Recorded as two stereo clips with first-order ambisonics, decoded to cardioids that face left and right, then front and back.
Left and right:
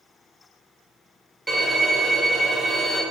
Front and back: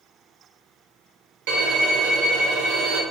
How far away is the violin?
About 0.8 m.